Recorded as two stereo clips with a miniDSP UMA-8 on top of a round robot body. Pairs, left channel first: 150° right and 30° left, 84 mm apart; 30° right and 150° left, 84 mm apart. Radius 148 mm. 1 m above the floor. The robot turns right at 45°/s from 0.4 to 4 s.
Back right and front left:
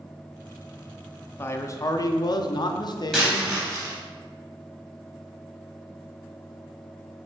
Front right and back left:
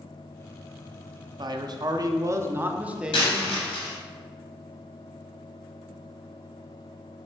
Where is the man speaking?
150° left, 0.6 m; by 3.5 s 115° right, 0.6 m.